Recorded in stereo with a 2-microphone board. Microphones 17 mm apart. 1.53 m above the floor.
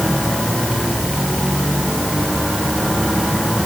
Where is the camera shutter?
I don't hear a camera shutter.